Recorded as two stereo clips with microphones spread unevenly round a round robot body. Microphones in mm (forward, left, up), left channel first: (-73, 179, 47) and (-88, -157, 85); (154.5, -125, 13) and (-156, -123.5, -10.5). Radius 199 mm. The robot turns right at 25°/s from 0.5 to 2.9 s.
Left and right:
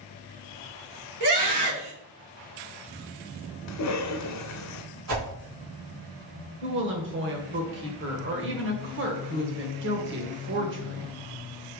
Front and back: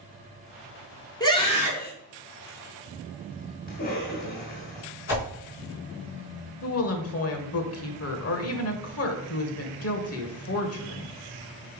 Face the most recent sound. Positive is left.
turn(degrees=-35)